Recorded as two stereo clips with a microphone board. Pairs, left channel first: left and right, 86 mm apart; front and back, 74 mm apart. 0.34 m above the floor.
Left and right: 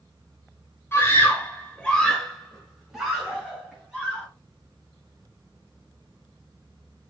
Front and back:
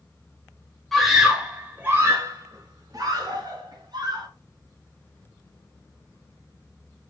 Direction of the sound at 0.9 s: 85° left.